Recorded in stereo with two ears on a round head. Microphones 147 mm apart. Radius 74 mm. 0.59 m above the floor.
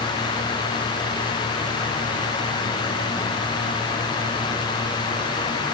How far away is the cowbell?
I don't hear a cowbell.